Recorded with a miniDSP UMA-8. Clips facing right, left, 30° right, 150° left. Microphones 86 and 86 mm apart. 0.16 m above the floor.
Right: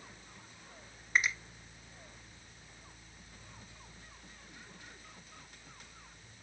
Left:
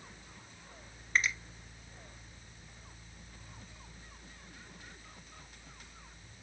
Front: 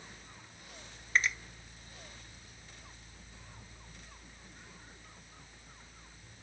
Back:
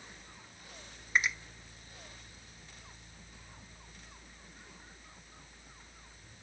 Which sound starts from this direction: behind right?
A finger snap, at 1.1 s.